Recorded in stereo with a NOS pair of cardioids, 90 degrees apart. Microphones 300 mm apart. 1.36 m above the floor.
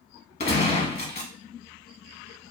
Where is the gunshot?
30° left, 1.3 m.